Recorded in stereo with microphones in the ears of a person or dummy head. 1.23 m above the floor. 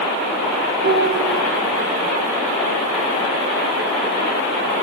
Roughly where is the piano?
Right.